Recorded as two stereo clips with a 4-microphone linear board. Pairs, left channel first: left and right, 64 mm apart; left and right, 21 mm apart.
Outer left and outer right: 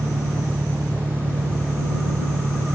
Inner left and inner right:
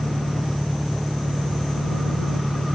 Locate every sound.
0.0 s an engine running: 70° right (ahead or behind)